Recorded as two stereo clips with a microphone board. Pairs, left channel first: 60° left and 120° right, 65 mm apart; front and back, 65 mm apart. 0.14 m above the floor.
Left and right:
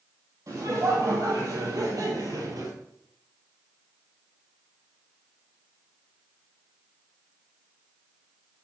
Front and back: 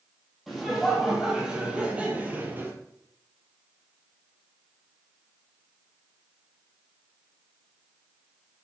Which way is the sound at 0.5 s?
95° right.